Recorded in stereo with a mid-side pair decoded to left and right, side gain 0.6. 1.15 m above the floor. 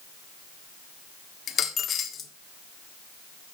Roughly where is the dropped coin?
Ahead left.